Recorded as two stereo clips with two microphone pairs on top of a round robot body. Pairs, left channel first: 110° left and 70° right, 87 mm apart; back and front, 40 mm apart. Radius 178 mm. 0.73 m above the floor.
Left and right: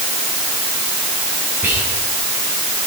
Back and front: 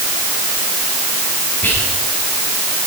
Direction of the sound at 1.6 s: 140° right.